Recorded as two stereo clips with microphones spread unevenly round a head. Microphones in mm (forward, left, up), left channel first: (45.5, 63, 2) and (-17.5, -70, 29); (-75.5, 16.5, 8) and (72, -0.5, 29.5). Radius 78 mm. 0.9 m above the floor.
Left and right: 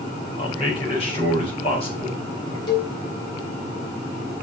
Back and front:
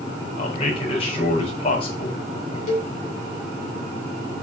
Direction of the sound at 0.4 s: 120° left.